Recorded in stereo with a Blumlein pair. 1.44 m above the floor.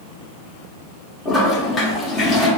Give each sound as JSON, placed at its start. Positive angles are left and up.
{"t": 1.2, "sound": "a toilet flushing", "azimuth_deg": 20, "distance_m": 1.2}